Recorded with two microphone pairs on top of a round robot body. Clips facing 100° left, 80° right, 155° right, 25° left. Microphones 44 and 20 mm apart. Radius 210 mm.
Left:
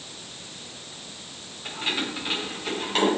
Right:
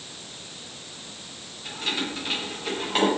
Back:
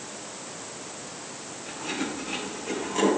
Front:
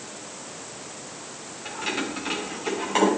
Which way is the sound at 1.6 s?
30° left.